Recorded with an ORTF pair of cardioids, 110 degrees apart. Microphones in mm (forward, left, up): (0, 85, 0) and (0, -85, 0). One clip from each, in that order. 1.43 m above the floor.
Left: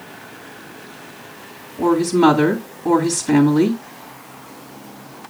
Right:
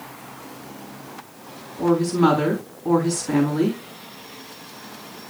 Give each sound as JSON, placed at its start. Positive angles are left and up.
{"t": 1.8, "sound": "a woman speaking", "azimuth_deg": 35, "distance_m": 3.5}